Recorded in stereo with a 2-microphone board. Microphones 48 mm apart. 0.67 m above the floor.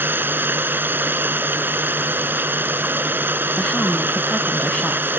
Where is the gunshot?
No gunshot in this recording.